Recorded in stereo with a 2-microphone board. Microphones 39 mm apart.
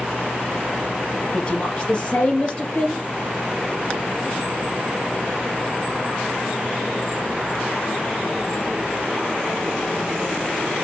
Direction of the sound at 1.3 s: 25° left (ahead or behind).